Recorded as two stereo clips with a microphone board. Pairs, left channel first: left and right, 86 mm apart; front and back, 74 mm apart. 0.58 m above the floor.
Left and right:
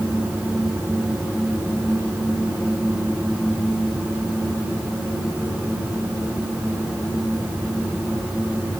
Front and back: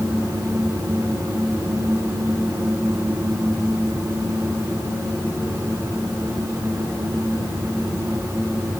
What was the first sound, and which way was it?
Only background noise.